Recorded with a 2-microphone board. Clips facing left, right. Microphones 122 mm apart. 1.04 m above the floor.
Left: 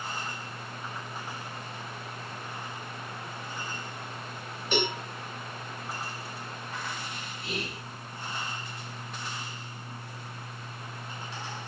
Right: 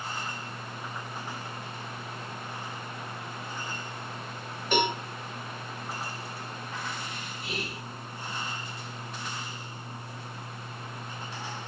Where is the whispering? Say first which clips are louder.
Left 1 dB; centre (ahead or behind), 0.7 m.